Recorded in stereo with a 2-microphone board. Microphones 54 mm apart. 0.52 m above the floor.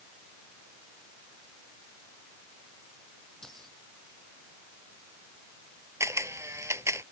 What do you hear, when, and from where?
3.4 s keys jangling: 10° left (ahead or behind)
6.0 s a camera shutter: 60° right (ahead or behind)